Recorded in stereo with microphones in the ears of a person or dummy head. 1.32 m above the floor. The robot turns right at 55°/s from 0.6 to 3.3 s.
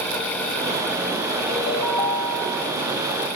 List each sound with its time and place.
1.5 s a ringtone: 125° left, 4 m; by 2.8 s 165° right, 4 m